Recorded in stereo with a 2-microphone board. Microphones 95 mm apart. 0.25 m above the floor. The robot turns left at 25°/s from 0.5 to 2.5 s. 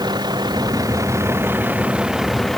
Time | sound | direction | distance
0.0 | a vehicle | 130° right | ?